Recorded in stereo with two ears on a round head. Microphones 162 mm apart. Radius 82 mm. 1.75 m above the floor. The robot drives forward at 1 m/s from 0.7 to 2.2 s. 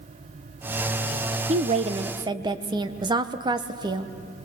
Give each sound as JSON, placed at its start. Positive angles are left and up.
{"t": 1.5, "sound": "a woman speaking", "side_deg": -35, "distance_m": 0.6}